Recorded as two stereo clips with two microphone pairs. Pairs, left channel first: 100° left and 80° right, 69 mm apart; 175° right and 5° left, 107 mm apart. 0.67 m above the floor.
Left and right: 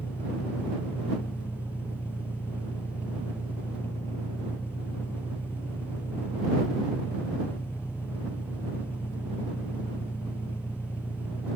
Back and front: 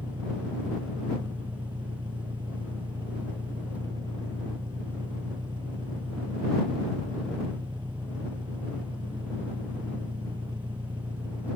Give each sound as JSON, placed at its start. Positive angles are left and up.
{"t": 0.0, "sound": "an engine running", "azimuth_deg": 45}